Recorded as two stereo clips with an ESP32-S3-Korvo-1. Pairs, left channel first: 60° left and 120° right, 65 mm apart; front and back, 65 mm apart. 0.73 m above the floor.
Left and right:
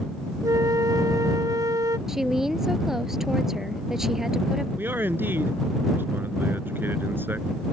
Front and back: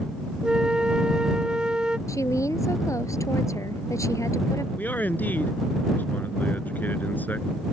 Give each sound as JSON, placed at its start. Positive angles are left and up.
{"t": 0.4, "sound": "a flute", "azimuth_deg": -105}
{"t": 2.1, "sound": "a woman speaking", "azimuth_deg": -35}
{"t": 4.8, "sound": "a man speaking", "azimuth_deg": -60}